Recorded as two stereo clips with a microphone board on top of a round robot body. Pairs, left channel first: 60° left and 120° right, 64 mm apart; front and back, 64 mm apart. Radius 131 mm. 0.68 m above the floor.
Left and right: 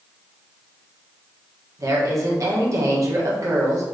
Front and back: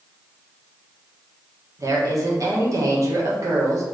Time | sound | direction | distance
1.8 | a woman speaking | 150° right | 1.3 m